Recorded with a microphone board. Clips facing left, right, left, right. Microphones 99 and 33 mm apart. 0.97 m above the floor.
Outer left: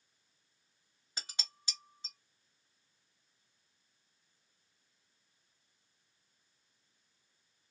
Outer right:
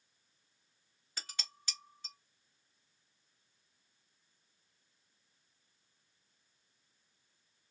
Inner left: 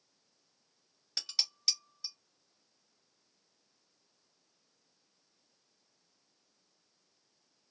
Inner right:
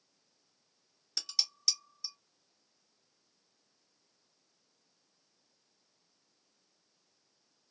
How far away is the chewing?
No chewing in this recording.